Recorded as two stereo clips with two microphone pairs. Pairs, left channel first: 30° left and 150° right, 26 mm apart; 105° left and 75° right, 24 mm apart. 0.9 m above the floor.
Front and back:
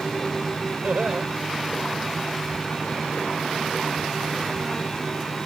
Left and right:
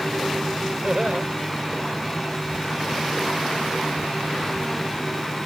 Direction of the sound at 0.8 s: 120° right.